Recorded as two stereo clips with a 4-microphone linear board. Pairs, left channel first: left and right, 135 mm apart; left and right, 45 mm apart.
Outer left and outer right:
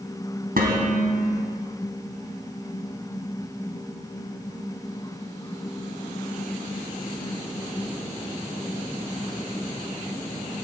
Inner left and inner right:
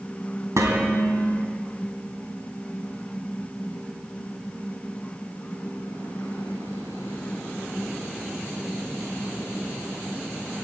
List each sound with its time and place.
0.6 s dishes clattering: 85° right, 3 m